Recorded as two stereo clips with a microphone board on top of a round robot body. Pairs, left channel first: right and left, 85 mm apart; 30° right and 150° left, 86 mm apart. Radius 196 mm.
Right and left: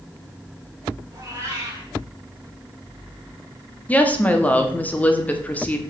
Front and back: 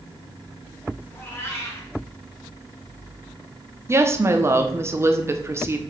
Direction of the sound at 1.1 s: 35° left.